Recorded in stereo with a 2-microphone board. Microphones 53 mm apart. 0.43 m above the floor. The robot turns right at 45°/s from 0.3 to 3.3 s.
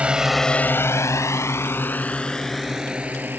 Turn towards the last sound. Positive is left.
turn(degrees=-35)  # may be behind; listen again after turning